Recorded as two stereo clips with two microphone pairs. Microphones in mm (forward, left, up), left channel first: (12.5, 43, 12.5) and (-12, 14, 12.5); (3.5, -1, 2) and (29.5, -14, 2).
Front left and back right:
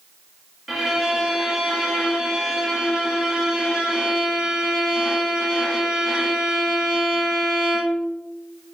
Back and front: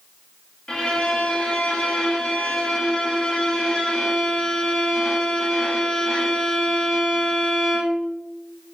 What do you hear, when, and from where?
0.7 s a violin: 165° left, 0.7 m